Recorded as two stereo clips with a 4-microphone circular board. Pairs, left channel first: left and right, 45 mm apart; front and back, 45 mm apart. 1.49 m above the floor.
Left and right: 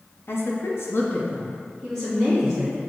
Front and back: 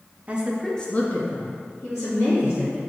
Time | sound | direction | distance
0.3 | a woman speaking | 120° left | 0.7 m